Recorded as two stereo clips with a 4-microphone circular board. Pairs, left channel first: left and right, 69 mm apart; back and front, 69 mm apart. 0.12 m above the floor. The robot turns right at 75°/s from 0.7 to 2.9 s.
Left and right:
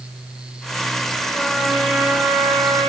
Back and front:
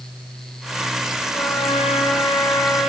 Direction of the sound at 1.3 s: 150° left.